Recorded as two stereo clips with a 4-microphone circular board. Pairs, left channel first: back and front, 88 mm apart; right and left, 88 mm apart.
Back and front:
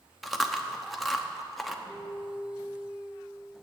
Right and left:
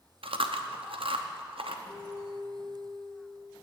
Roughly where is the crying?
No crying in this recording.